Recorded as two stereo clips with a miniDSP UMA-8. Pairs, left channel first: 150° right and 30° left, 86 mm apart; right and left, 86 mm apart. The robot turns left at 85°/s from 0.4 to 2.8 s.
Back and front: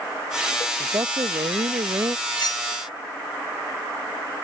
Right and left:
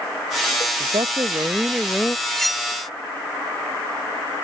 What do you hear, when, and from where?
0.8 s a woman speaking: 90° left; by 2.2 s 25° right
2.3 s cutlery clinking: 165° right; by 2.7 s 165° left